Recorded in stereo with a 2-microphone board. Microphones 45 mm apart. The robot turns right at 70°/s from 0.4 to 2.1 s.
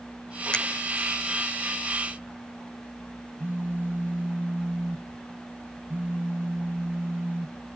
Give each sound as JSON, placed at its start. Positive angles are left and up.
{"t": 0.5, "sound": "a finger snap", "side_deg": 20, "distance_m": 0.9}
{"t": 3.4, "sound": "a phone buzzing", "side_deg": -50, "distance_m": 1.4}